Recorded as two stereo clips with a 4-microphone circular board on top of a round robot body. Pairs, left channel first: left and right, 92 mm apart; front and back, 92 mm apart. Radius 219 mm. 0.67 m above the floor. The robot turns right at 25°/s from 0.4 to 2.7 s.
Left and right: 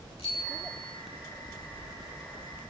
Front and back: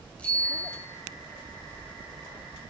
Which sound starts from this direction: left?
A bicycle bell, at 0.2 s.